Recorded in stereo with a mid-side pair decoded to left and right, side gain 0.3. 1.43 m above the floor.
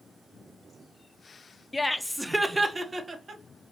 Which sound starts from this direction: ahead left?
Laughter, at 1.7 s.